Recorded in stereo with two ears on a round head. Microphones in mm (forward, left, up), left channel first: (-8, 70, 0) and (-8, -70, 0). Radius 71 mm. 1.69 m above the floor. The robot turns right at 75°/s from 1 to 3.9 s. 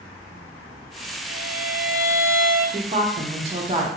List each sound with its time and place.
1.2 s a violin: 55° left, 1.7 m; by 2.6 s 160° left, 1.7 m
2.7 s a woman speaking: 125° right, 0.6 m; by 3.9 s 40° right, 0.6 m